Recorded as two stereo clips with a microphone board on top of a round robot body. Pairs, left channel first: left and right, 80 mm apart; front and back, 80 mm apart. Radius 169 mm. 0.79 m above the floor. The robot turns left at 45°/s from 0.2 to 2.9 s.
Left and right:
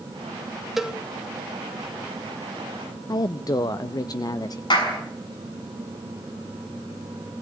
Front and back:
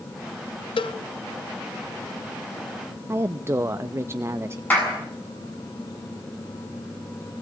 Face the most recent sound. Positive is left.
turn(degrees=70)